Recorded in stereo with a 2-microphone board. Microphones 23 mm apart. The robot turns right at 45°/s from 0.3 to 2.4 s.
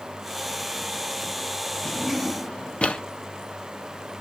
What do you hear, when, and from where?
1.9 s a drawer: 50° left (ahead or behind), 0.7 m; by 3.0 s 65° left (ahead or behind), 0.7 m